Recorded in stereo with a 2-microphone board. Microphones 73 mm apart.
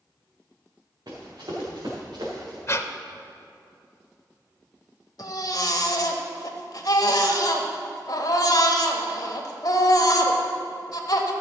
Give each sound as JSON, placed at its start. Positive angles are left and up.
{"t": 1.1, "sound": "running footsteps", "side_deg": -65, "distance_m": 3.5}
{"t": 2.7, "sound": "breathing", "side_deg": 40, "distance_m": 0.6}
{"t": 5.2, "sound": "a baby crying", "side_deg": 60, "distance_m": 1.1}